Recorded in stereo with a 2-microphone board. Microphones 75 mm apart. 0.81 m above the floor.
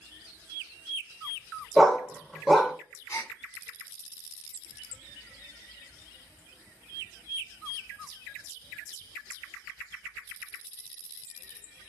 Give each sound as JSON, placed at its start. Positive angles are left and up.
{"t": 1.8, "sound": "a dog barking", "side_deg": 0, "distance_m": 0.9}
{"t": 3.1, "sound": "a gasp", "side_deg": 45, "distance_m": 0.8}